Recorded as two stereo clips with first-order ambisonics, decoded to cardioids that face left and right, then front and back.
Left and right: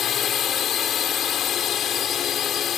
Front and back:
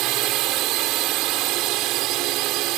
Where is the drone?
150° left.